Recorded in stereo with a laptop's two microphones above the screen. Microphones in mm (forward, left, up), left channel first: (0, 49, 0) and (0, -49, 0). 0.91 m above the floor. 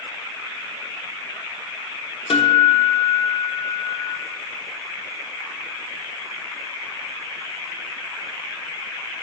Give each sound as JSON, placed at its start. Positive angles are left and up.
{"t": 2.3, "sound": "a guitar", "side_deg": 65, "distance_m": 0.8}